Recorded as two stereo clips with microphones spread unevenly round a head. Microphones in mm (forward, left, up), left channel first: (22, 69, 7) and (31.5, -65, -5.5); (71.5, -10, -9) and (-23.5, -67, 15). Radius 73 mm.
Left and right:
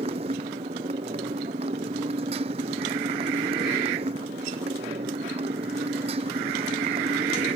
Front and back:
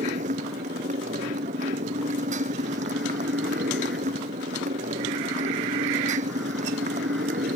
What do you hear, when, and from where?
0.0 s a motorcycle: 140° right